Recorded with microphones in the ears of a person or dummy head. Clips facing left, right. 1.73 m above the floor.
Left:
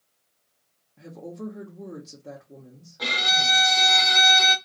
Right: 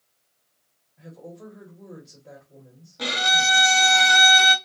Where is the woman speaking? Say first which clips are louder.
Left 5 dB; 65° left (ahead or behind), 0.8 m.